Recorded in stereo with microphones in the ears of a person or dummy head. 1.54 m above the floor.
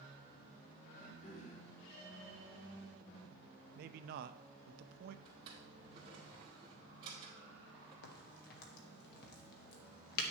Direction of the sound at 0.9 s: 40° left (ahead or behind).